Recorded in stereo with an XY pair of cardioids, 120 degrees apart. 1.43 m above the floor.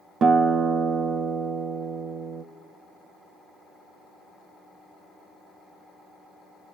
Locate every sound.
0.2 s a guitar: 50° right, 0.6 m